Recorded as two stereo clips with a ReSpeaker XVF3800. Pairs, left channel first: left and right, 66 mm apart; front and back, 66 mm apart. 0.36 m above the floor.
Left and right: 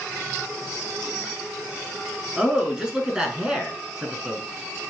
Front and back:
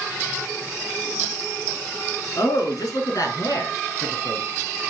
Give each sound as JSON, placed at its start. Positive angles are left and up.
{"t": 2.4, "sound": "a man speaking", "azimuth_deg": -10, "distance_m": 5.5}